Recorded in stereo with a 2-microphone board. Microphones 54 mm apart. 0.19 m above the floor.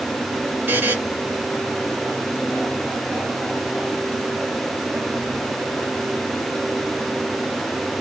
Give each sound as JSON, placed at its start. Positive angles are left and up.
{"t": 0.7, "sound": "a buzzer", "side_deg": -45, "distance_m": 3.0}